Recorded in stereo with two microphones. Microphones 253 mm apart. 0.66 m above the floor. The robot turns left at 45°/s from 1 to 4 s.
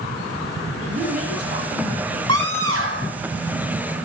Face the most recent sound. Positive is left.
turn(degrees=180)